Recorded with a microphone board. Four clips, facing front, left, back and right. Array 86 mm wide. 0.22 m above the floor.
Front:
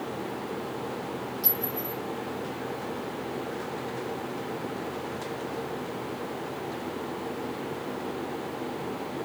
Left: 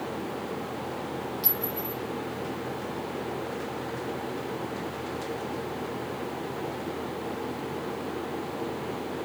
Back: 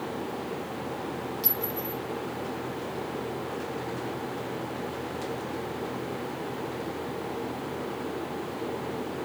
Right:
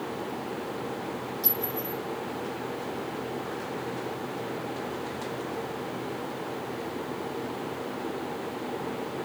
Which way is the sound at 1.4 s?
155° left.